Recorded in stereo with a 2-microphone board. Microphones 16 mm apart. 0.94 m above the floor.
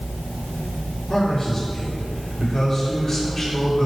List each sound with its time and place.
1.1 s a man speaking: 35° left (ahead or behind), 3 m